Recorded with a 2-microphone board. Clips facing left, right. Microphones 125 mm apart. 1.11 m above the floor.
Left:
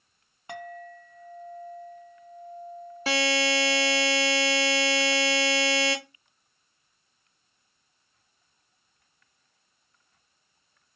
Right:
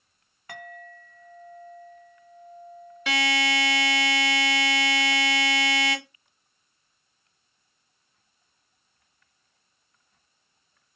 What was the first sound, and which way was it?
A clink, 25° left (ahead or behind).